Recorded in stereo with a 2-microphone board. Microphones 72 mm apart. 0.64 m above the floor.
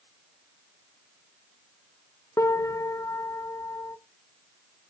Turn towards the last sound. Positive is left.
turn(degrees=45)  # may be behind; listen again after turning